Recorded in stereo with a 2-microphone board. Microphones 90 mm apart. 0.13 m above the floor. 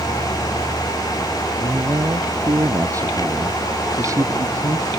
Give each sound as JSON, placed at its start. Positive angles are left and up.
{"t": 1.6, "sound": "a man speaking", "side_deg": -35}